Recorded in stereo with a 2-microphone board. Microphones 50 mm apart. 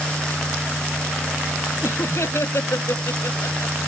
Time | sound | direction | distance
1.8 | laughter | 65° left (ahead or behind) | ?